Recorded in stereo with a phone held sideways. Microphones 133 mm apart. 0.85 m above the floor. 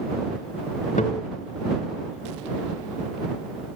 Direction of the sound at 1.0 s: 80° left.